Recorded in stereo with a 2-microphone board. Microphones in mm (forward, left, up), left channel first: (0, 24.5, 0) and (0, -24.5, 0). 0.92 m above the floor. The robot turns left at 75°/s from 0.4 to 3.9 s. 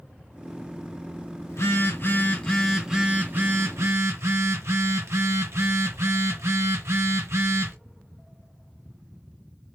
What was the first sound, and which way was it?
A phone buzzing, 95° left.